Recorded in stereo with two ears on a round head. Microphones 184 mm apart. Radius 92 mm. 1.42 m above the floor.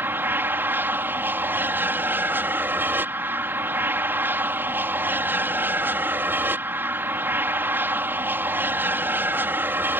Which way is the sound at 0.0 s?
10° right (ahead or behind).